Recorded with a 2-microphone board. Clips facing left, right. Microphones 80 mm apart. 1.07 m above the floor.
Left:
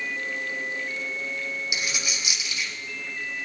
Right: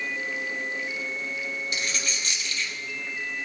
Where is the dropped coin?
10° left (ahead or behind), 2.5 m.